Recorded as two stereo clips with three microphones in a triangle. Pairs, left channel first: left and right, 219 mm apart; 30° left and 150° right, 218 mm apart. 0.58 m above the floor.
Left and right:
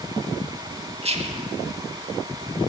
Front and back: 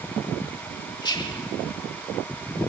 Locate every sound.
1.0 s whispering: 35° right, 1.0 m